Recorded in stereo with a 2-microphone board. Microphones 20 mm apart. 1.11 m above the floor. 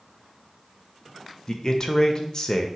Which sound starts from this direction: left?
A man speaking, at 1.5 s.